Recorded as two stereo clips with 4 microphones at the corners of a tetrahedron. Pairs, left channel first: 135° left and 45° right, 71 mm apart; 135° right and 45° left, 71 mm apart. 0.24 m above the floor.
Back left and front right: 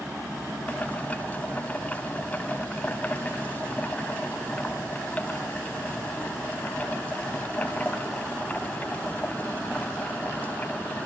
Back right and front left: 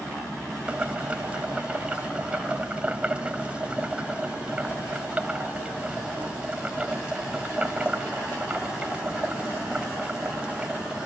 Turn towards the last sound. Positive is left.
turn(degrees=100)